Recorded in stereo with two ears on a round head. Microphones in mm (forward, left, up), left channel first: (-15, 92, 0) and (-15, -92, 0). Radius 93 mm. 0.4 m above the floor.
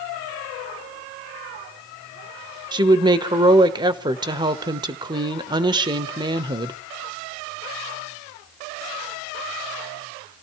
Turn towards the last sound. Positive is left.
turn(degrees=-20)  # may be behind; listen again after turning